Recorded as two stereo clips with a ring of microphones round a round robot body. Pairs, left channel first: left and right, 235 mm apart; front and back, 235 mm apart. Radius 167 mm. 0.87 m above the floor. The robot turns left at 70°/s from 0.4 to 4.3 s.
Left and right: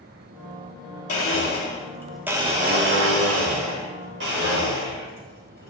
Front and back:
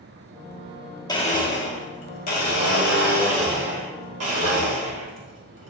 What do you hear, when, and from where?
1.1 s a blender: 75° left, 1.8 m; by 5.7 s 150° right, 1.8 m